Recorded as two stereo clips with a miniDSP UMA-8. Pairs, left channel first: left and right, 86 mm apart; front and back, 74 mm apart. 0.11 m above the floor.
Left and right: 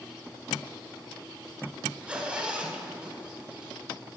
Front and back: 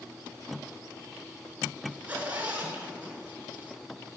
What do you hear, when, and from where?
1.9 s a zipper: 145° right, 1.0 m